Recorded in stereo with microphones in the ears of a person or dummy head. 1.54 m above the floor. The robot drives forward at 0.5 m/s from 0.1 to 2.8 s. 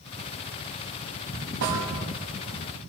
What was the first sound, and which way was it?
A snare drum, 65° right (ahead or behind).